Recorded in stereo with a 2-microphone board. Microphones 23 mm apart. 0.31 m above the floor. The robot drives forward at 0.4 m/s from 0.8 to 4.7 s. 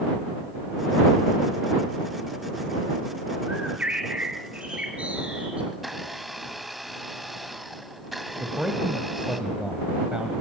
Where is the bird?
65° right (ahead or behind), 4.5 m; by 5.6 s 60° right (ahead or behind), 5 m.